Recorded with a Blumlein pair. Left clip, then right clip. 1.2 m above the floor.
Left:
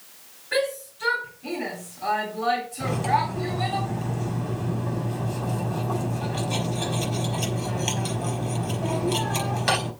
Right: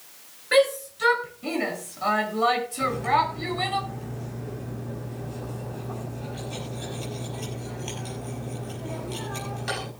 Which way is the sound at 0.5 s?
60° right.